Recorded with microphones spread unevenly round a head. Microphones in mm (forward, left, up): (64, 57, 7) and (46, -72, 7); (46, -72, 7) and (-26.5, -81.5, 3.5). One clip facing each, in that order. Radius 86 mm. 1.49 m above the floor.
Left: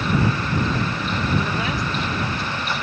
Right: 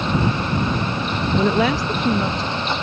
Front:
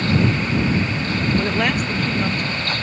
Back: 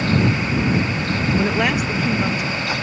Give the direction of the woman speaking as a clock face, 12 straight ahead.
3 o'clock.